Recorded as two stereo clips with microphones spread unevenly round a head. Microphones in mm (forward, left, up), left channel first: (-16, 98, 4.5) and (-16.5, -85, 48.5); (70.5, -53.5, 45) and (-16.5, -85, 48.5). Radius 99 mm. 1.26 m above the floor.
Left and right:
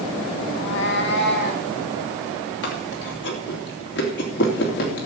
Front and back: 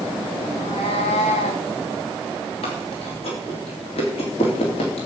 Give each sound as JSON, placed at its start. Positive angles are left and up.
{"t": 0.5, "sound": "a cat meowing", "azimuth_deg": 85, "distance_m": 1.1}
{"t": 2.6, "sound": "chewing", "azimuth_deg": 55, "distance_m": 3.0}